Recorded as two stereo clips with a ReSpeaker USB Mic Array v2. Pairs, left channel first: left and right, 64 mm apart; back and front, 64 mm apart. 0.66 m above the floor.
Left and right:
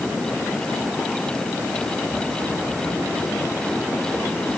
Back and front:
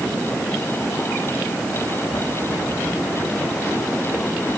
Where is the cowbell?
I don't hear a cowbell.